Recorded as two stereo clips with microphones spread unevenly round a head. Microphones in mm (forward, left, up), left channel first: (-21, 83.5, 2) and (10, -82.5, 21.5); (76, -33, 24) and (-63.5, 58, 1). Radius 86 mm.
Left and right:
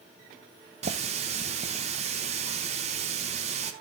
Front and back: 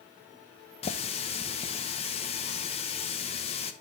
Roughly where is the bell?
No bell in this recording.